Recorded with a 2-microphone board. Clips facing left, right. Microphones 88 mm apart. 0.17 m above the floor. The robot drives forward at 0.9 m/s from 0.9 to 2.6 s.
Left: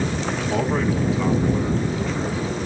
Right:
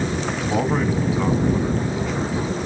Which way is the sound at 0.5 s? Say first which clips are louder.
Right 1 dB; 15° right (ahead or behind).